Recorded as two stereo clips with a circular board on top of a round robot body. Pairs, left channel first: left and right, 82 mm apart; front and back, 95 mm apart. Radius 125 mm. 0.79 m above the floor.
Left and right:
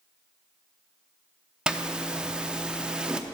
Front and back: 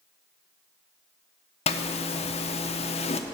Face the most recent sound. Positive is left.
turn(degrees=-10)